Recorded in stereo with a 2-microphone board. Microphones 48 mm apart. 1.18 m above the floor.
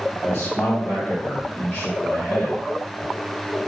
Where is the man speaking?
50° left (ahead or behind), 1.2 m; by 2.6 s 65° left (ahead or behind), 2 m.